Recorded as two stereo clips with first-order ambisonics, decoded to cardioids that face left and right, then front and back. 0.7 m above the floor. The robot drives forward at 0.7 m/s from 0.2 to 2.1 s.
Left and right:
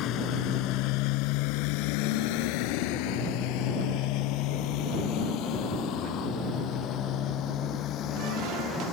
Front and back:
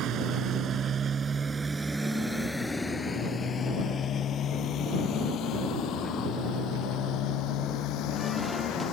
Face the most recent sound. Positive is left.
turn(degrees=40)